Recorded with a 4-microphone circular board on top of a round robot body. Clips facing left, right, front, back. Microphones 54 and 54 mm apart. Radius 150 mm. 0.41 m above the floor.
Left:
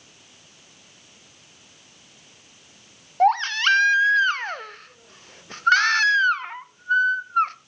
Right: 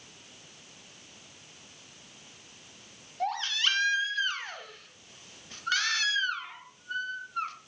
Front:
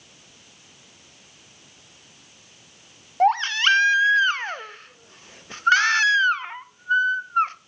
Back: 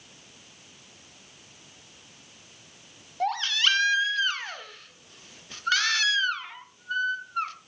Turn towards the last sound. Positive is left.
turn(degrees=55)